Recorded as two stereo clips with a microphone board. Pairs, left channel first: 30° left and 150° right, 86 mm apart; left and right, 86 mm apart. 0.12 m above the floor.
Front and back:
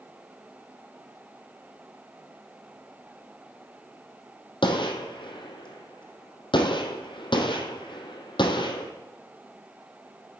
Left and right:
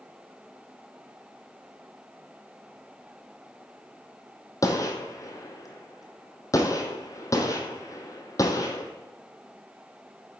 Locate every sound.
4.6 s a gunshot: 40° left, 1.4 m